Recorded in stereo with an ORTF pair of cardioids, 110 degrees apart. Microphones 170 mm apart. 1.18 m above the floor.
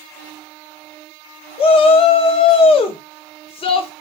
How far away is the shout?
About 0.8 m.